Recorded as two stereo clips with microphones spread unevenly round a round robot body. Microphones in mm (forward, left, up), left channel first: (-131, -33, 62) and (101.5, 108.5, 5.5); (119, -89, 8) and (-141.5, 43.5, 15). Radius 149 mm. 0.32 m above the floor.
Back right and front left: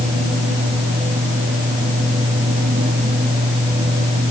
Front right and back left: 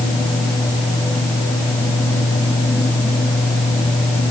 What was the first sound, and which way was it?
Only background noise.